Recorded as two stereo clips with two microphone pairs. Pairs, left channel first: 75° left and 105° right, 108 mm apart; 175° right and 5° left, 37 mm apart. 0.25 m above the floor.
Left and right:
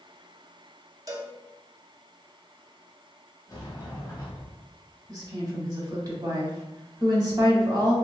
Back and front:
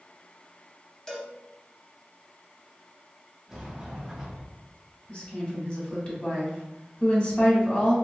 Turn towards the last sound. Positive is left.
turn(degrees=-135)